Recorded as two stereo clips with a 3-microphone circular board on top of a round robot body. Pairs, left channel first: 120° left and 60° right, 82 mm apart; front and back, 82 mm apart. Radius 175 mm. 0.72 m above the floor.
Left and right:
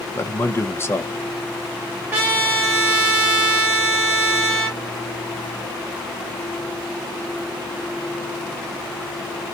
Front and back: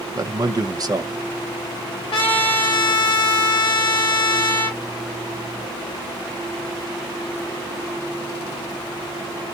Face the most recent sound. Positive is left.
turn(degrees=10)